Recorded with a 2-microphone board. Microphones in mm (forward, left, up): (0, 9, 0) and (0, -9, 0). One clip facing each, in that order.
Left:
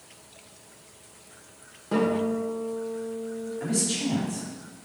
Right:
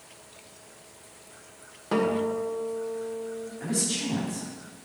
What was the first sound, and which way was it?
A guitar, 25° right (ahead or behind).